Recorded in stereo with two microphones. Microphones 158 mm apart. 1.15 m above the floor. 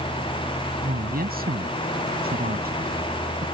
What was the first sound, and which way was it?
A woman speaking, 75° right (ahead or behind).